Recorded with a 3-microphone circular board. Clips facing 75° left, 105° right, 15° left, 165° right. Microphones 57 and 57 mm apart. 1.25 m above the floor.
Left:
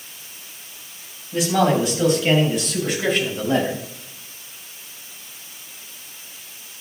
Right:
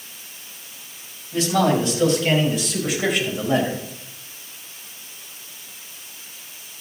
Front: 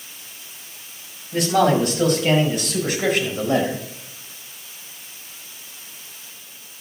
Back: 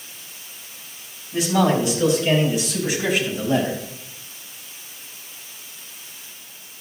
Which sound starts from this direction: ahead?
A man speaking, at 1.3 s.